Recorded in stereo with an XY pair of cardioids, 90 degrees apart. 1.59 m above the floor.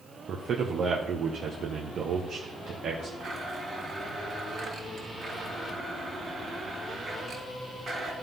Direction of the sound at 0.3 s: 65° right.